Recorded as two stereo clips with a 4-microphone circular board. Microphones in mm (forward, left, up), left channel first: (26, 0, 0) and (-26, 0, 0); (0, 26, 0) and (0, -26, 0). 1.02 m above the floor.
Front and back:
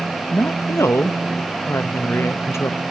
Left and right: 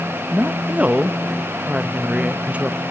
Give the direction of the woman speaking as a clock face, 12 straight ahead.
1 o'clock.